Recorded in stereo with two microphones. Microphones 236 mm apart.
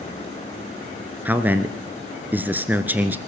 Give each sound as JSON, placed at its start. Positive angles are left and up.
{"t": 1.2, "sound": "a man speaking", "side_deg": -10, "distance_m": 1.3}